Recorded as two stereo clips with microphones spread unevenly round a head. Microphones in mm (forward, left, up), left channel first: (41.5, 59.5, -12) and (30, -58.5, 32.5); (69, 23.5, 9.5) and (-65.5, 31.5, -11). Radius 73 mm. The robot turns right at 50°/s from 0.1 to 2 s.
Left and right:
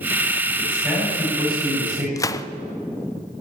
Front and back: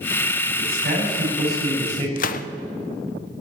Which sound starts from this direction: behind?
A man speaking, at 0.6 s.